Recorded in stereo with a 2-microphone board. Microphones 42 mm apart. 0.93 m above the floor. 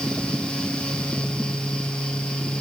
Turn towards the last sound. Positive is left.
No sound to turn to.